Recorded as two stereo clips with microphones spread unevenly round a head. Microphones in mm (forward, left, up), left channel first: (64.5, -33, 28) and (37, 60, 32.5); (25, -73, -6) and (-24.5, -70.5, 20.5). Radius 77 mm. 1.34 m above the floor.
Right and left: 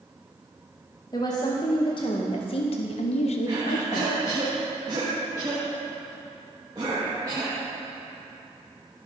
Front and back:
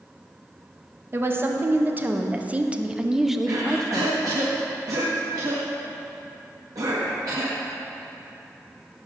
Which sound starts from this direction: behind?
A cough, at 3.5 s.